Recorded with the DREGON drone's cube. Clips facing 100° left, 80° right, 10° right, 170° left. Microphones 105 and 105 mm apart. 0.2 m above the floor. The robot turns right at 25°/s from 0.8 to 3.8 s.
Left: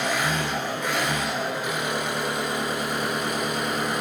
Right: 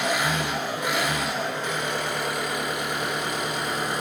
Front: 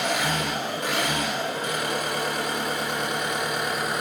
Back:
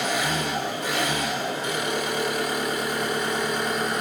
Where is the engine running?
Straight ahead, 1.1 m; by 4.0 s 75° left, 1.1 m.